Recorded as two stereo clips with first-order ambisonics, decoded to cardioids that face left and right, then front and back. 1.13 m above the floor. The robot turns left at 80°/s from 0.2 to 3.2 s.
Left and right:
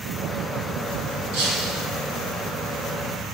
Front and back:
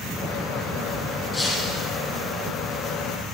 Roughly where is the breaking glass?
Right.